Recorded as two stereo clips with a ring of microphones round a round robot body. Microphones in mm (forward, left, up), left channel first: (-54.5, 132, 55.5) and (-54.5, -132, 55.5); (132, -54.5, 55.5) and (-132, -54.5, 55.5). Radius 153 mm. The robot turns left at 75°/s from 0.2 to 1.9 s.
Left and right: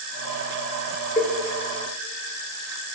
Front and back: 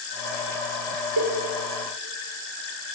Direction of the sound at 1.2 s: 155° left.